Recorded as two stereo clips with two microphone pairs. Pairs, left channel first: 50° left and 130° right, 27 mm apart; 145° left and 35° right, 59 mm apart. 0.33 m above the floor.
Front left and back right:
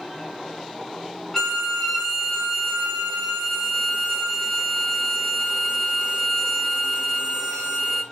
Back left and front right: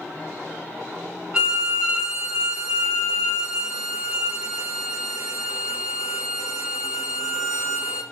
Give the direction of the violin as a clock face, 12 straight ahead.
12 o'clock.